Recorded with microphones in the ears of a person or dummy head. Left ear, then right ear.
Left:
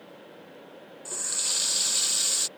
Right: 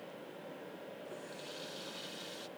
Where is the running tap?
65° left (ahead or behind).